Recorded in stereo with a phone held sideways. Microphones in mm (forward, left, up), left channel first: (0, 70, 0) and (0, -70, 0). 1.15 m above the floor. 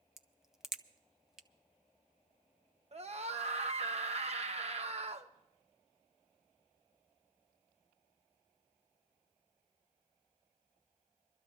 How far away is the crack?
About 0.5 m.